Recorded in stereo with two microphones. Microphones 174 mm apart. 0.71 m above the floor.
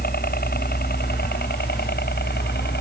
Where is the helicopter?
60° left (ahead or behind); by 2.8 s 70° left (ahead or behind).